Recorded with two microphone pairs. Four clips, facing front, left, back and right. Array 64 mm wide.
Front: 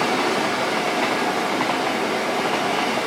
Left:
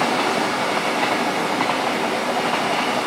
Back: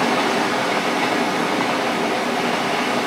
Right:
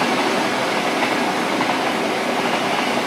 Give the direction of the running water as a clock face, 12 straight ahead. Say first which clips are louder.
Right 1 dB, back 2 dB; 5 o'clock.